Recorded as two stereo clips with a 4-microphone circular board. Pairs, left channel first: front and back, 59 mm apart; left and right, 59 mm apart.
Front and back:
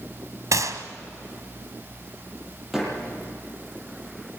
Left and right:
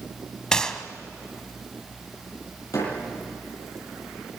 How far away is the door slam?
About 9.5 m.